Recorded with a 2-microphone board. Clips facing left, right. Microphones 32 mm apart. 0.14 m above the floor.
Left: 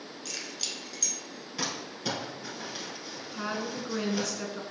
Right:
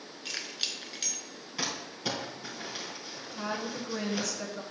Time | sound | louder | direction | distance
0.2 | keys jangling | right 2 dB | 30° right (ahead or behind) | 0.9 m
1.6 | crumpling | even | 10° right (ahead or behind) | 3.5 m
3.3 | a woman speaking | left 1 dB | 20° left (ahead or behind) | 1.2 m